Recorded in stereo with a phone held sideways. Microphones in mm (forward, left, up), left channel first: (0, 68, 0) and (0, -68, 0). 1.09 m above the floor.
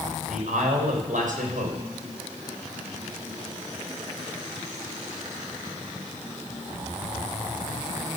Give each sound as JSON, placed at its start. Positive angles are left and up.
{"t": 0.3, "sound": "a man speaking", "side_deg": -75, "distance_m": 5.5}